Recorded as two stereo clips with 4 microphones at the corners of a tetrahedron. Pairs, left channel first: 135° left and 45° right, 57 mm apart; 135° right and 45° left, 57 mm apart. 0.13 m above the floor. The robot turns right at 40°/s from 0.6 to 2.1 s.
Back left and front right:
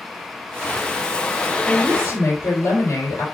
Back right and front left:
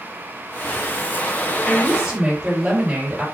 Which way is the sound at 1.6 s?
100° left.